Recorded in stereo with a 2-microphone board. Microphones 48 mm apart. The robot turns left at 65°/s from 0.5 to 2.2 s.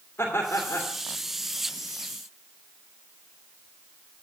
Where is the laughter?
60° left (ahead or behind), 2.5 m; by 0.9 s 90° left, 2.5 m.